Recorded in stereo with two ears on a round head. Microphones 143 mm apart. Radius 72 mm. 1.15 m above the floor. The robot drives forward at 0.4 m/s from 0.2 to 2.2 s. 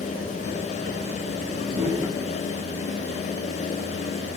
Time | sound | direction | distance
1.7 | a whoosh | 35° right (ahead or behind) | 6 m